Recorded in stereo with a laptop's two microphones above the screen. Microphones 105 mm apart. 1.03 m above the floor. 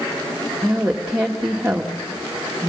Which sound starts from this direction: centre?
A woman speaking, at 0.6 s.